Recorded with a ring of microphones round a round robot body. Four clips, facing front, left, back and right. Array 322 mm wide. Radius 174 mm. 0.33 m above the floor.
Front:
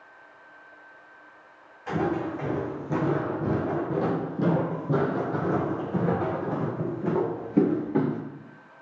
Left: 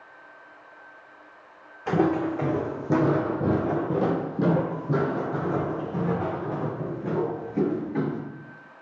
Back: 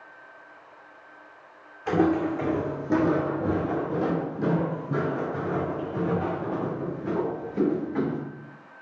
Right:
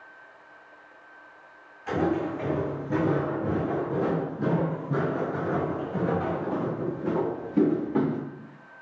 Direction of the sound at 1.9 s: 115° left.